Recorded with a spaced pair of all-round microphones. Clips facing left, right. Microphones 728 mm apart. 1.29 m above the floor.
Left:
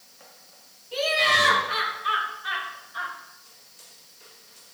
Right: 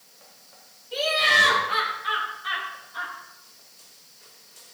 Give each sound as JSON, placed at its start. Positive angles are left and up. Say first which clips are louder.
{"t": 0.9, "sound": "laughter", "louder": "left 1 dB", "side_deg": -40, "distance_m": 4.0}